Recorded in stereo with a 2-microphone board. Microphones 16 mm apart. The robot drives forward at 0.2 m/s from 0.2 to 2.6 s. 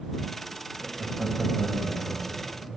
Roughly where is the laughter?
Right.